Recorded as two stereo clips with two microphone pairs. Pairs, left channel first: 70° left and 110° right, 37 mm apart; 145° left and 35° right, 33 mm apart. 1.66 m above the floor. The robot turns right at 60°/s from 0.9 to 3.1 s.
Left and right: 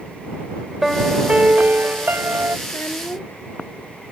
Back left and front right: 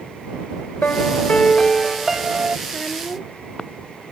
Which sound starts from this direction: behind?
A piano, at 0.8 s.